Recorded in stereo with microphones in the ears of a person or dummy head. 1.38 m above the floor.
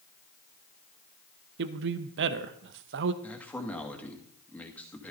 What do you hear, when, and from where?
1.6 s a man speaking: 65° right (ahead or behind), 0.9 m
3.2 s a man speaking: 10° left (ahead or behind), 2 m